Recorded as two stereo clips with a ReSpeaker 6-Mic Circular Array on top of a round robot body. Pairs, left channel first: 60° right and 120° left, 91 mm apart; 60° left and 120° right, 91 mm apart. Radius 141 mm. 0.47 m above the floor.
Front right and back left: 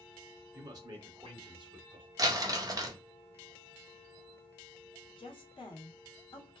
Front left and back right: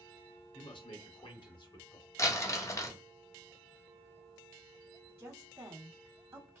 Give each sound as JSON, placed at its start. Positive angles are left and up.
{"t": 0.5, "sound": "a man speaking", "azimuth_deg": 75, "distance_m": 2.0}
{"t": 2.2, "sound": "crumpling", "azimuth_deg": 100, "distance_m": 1.4}
{"t": 5.2, "sound": "a woman speaking", "azimuth_deg": -50, "distance_m": 1.6}